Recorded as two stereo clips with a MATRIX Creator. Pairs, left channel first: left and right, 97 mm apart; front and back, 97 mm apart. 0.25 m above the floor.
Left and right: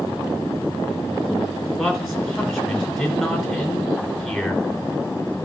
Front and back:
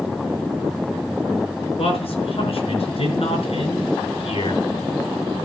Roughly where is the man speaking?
Ahead.